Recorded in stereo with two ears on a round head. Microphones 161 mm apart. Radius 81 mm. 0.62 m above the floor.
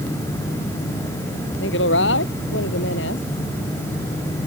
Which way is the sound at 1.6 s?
70° left (ahead or behind).